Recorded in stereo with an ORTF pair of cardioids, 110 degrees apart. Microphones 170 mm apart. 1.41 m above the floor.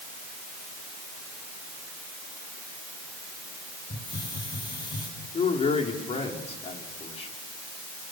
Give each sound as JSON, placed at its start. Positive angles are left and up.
{"t": 3.9, "sound": "a hiss", "azimuth_deg": 25, "distance_m": 8.5}
{"t": 5.3, "sound": "a man speaking", "azimuth_deg": 40, "distance_m": 4.0}